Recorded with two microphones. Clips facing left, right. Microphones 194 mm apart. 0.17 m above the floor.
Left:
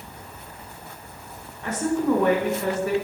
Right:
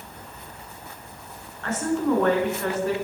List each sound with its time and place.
1.6 s a woman speaking: 15° left (ahead or behind), 1.6 m